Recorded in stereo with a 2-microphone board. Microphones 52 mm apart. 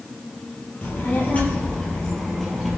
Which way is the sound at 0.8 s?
40° left (ahead or behind).